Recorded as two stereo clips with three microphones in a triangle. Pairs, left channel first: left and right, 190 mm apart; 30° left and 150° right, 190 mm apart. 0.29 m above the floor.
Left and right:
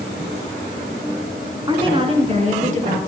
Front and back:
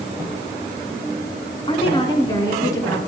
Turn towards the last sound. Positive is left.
turn(degrees=-45)